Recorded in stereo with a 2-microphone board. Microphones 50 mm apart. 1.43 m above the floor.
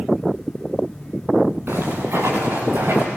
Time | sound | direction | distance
1.7 | footsteps | 65° right (ahead or behind) | 9 m